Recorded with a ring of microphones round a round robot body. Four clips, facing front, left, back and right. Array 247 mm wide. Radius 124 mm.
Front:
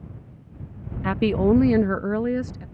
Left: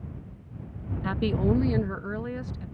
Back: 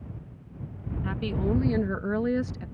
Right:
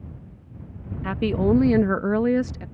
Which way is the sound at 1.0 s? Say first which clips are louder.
Right 4 dB, front 10 dB; 15° right.